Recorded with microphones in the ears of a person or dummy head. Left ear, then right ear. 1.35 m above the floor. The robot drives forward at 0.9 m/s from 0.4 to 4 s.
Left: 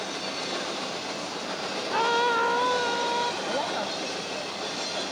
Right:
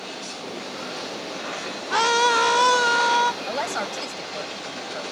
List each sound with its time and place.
1.9 s a scream: 70° right (ahead or behind); by 3.3 s 45° right (ahead or behind)
3.5 s a woman speaking: 70° right (ahead or behind); by 5.0 s 75° right (ahead or behind)